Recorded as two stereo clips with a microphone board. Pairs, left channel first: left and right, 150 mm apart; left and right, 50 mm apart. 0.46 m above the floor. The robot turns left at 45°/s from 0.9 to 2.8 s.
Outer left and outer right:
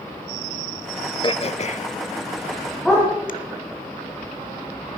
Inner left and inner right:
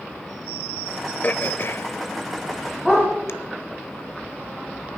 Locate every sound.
1.2 s throat clearing: 35° left (ahead or behind), 0.8 m; by 3.3 s 65° left (ahead or behind), 0.8 m
2.9 s a dog barking: 5° left (ahead or behind), 8.5 m